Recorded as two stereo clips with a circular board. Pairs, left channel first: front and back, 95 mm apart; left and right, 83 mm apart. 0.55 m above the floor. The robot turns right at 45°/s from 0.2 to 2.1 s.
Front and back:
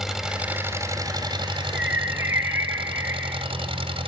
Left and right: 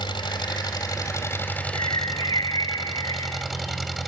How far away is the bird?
About 1.9 m.